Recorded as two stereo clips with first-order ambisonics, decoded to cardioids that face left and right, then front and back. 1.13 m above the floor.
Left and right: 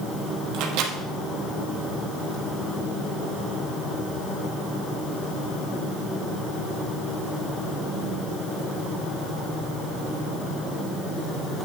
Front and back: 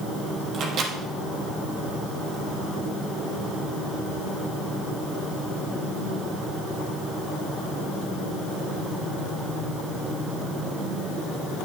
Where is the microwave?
125° right, 1.3 m.